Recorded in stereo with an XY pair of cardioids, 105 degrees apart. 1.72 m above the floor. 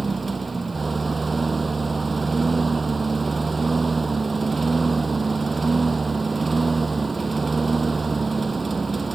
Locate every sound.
0.0 s a lawn mower: 20° right